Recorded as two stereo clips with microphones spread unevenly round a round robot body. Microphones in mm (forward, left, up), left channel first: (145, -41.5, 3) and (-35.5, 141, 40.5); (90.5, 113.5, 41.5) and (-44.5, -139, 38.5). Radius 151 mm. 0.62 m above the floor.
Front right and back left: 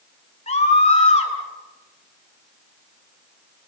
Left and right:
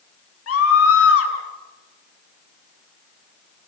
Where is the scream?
20° left, 7 m.